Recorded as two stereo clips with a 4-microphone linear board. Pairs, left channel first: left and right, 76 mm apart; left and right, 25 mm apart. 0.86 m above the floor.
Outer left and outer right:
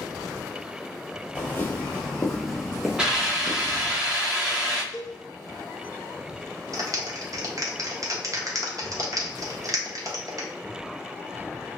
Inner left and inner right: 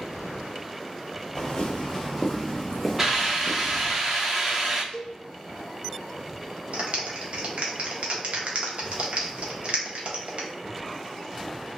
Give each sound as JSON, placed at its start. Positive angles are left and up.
{"t": 1.4, "sound": "footsteps", "side_deg": 30, "distance_m": 1.1}
{"t": 3.0, "sound": "a hiss", "side_deg": -10, "distance_m": 0.8}
{"t": 4.9, "sound": "a cowbell", "side_deg": 50, "distance_m": 0.7}
{"t": 6.7, "sound": "a clap", "side_deg": -50, "distance_m": 0.7}